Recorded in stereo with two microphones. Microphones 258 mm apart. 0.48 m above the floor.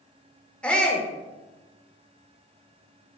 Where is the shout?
5° left (ahead or behind), 1.2 m.